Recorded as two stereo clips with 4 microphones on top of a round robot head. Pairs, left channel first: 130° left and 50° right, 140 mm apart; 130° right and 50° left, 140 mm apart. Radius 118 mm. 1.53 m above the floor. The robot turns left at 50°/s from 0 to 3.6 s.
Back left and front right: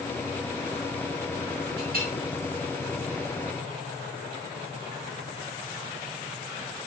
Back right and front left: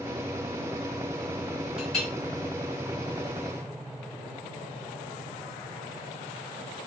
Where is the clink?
35° right, 7 m; by 2.1 s 50° right, 7 m.